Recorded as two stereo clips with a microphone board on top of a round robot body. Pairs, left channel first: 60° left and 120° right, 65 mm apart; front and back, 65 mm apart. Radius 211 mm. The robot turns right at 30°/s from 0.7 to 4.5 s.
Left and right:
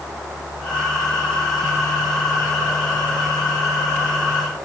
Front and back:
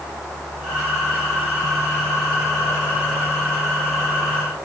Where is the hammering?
I don't hear hammering.